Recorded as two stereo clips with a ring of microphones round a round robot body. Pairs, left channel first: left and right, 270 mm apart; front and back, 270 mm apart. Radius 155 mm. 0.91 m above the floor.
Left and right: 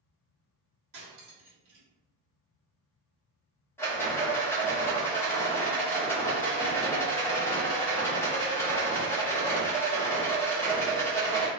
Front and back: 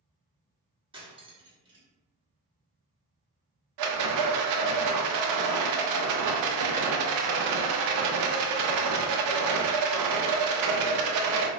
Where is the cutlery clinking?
110° right, 1.1 m.